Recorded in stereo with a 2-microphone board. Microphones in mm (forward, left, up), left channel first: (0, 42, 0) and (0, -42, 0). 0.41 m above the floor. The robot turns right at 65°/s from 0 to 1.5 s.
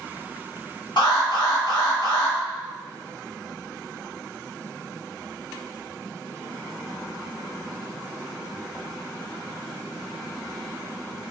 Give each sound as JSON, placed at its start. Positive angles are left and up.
{"t": 1.0, "sound": "an alarm", "azimuth_deg": 85, "distance_m": 1.6}